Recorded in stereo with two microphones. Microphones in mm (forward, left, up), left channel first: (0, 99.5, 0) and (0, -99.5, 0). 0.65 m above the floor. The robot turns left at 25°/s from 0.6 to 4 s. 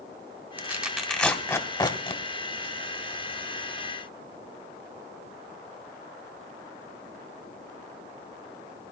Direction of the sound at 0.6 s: 10° right (ahead or behind).